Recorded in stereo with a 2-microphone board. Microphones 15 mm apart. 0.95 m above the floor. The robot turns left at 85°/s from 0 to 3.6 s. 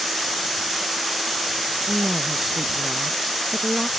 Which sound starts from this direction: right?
A woman speaking, at 1.9 s.